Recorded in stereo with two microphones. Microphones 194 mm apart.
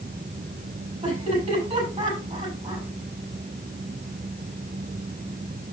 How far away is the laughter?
About 6 m.